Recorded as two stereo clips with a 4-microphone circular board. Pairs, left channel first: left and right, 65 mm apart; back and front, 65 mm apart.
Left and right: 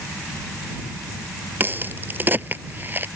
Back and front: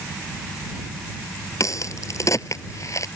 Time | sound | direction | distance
1.6 | a crack | 145° right | ?